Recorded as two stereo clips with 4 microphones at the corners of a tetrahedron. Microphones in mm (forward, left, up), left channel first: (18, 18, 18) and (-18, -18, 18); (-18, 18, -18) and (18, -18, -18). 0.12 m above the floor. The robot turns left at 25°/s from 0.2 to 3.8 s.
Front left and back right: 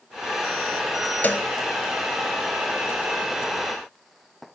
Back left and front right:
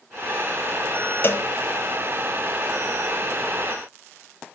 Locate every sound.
1.2 s a cowbell: 100° left, 1.2 m; by 1.5 s 95° left, 1.2 m